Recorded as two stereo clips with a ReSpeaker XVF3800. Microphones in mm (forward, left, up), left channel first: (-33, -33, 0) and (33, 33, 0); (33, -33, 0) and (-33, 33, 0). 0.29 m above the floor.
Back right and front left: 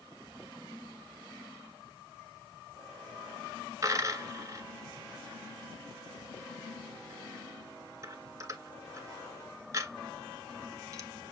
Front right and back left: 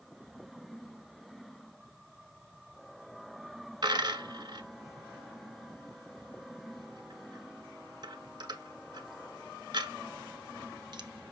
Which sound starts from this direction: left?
A dropped coin, at 3.8 s.